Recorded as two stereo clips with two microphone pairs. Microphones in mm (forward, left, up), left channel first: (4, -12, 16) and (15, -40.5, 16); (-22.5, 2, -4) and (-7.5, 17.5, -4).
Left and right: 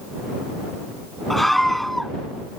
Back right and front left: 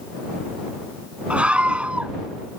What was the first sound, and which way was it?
A scream, 20° left.